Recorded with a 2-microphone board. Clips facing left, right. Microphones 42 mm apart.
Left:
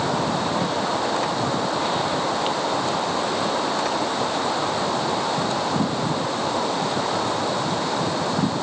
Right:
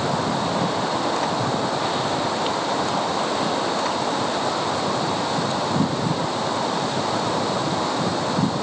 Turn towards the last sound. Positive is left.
No sound to turn to.